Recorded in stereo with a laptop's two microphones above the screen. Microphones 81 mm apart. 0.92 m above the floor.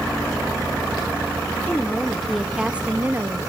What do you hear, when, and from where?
1.7 s a woman speaking: 20° left (ahead or behind), 1.7 m; by 3.5 s 40° right (ahead or behind), 1.4 m